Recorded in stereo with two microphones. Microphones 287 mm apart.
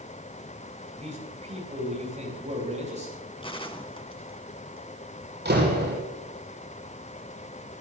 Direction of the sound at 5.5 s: 35° right (ahead or behind).